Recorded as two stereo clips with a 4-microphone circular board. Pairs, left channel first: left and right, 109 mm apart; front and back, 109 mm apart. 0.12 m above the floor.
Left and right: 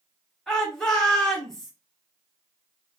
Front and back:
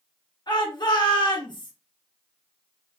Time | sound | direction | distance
0.5 | a shout | 5° left | 1.7 m